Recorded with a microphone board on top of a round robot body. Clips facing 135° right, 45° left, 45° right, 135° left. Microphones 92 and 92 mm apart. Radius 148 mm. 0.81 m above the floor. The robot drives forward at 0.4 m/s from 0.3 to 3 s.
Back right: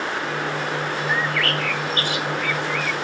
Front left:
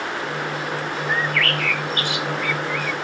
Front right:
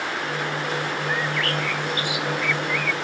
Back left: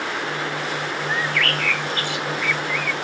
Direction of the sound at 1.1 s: 80° right.